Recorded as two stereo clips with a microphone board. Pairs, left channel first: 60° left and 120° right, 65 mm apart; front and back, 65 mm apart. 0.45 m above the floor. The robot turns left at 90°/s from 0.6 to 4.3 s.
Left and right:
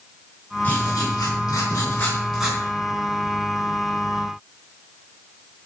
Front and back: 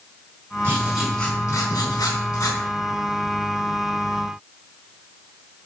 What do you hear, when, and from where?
0.6 s writing: 125° left, 4 m; by 2.6 s 50° right, 4 m